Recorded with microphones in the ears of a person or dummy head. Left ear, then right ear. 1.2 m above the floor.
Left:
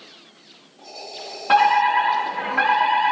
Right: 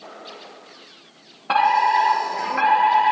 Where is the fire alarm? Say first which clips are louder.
Left 1 dB; 5° left (ahead or behind), 4.5 m.